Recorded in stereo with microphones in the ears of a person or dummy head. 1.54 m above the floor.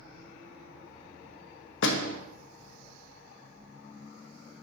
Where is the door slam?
80° left, 1.6 m.